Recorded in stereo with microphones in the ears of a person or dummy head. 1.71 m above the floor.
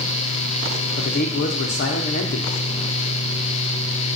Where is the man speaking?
55° left (ahead or behind), 0.6 m.